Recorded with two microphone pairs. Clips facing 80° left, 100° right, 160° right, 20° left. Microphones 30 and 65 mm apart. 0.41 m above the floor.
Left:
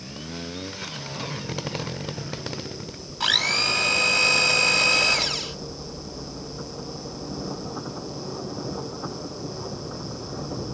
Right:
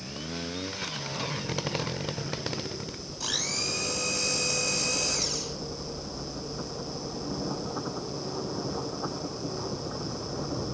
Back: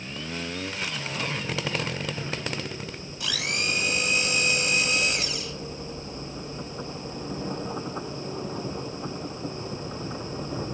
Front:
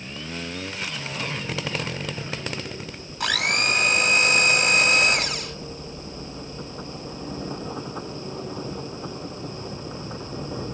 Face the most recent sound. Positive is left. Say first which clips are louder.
# left 10 dB, front 7 dB
turn(degrees=50)